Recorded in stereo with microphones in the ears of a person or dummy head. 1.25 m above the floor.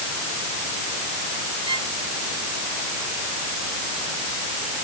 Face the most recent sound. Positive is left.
turn(degrees=-30)  # may be behind; listen again after turning